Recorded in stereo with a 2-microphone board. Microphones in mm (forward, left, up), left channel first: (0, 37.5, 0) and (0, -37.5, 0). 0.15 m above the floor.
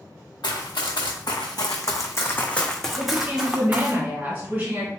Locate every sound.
0.4 s running footsteps: 85° left, 1.1 m; by 4.0 s 25° right (ahead or behind), 1.0 m
3.0 s a woman speaking: 25° right (ahead or behind), 2.0 m